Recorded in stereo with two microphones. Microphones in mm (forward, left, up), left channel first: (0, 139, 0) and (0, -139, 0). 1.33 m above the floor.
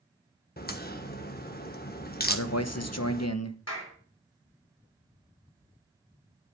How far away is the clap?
About 4 m.